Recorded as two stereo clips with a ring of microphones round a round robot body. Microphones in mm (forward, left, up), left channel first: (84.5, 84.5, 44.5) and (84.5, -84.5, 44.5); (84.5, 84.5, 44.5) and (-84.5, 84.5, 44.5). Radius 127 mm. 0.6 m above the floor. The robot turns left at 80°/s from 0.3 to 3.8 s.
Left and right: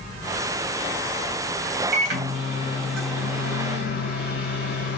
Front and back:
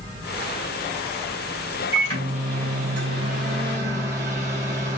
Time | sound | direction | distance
1.9 | a microwave | 100° right | 3.5 m